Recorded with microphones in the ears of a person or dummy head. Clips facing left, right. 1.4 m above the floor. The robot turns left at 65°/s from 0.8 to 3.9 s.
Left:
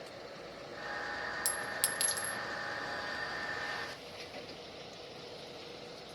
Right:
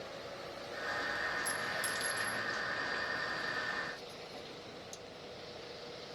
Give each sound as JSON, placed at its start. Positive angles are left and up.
{"t": 1.4, "sound": "a clink", "side_deg": 60, "distance_m": 1.2}